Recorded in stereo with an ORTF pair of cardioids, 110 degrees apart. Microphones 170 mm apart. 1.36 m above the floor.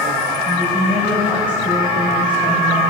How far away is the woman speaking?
About 5 m.